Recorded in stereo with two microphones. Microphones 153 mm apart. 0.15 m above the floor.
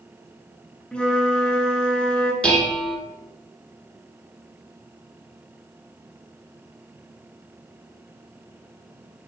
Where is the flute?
5° left (ahead or behind), 1.0 m.